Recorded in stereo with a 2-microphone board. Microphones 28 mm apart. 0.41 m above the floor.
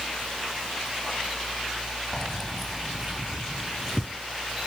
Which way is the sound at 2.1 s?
20° left (ahead or behind).